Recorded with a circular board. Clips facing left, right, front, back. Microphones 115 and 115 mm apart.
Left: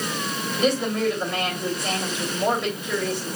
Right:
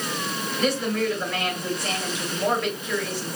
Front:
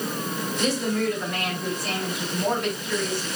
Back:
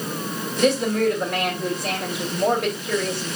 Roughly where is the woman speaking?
Behind.